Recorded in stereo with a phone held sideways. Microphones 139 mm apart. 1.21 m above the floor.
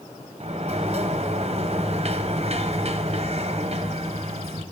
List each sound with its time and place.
0.4 s a sliding door: 50° right (ahead or behind), 1.0 m